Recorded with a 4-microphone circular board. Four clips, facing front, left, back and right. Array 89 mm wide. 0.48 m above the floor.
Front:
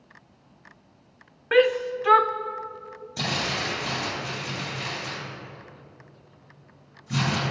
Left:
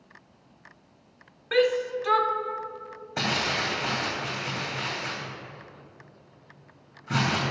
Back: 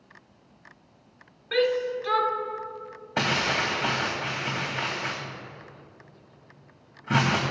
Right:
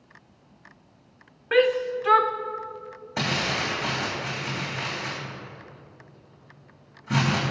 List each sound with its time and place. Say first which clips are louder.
1.5 s a shout: right 2 dB, front 4 dB; 25° right, 0.9 m
3.2 s crumpling: right 1 dB, back 4 dB; straight behind, 3.5 m